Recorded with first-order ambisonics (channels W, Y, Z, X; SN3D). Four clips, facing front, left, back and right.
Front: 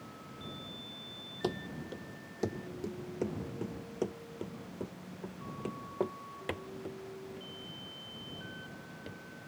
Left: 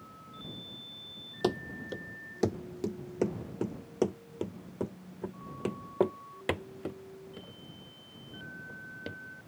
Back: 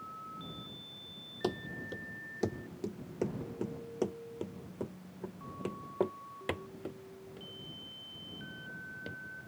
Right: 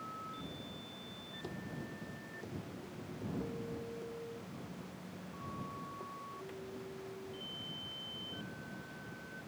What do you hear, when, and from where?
1.4 s running footsteps: 90° left; by 9.2 s 95° left